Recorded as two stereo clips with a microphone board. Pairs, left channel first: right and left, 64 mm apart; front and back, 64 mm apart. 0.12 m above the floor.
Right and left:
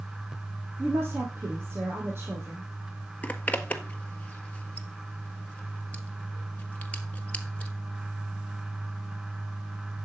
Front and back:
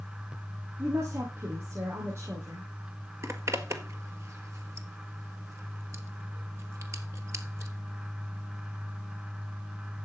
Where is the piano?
No piano in this recording.